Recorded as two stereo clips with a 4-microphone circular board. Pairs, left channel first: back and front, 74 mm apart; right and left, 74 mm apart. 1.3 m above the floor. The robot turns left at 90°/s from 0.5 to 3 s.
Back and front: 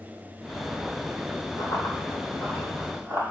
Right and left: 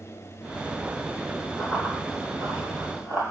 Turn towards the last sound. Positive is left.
turn(degrees=45)